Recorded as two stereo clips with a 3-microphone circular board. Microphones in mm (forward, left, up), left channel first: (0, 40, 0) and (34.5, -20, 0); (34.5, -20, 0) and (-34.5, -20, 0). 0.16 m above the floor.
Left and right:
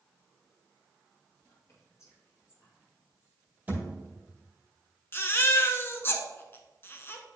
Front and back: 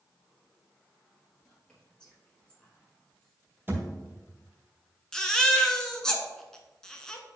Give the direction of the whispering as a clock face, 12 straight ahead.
9 o'clock.